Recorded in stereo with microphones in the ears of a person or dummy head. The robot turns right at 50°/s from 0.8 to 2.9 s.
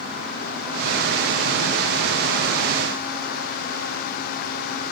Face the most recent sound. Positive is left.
No sound to turn to.